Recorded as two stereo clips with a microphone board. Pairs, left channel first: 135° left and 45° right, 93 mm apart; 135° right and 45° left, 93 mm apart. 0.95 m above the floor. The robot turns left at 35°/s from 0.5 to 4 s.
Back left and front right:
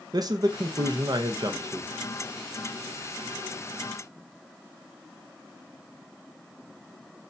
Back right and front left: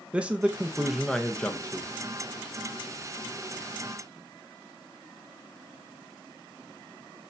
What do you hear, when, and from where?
0.1 s a man speaking: 25° right, 0.6 m; by 1.9 s 75° right, 0.6 m